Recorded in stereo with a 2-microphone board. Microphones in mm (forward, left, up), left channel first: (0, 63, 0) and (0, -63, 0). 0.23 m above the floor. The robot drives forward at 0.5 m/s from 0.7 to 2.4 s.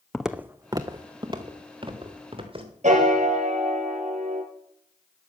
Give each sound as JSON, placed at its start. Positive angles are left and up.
{"t": 0.1, "sound": "footsteps", "side_deg": 5, "distance_m": 0.8}
{"t": 2.8, "sound": "a piano", "side_deg": -75, "distance_m": 2.0}